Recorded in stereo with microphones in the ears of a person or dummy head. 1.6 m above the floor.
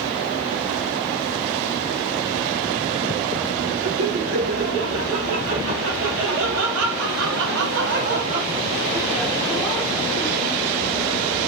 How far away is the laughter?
About 4.5 m.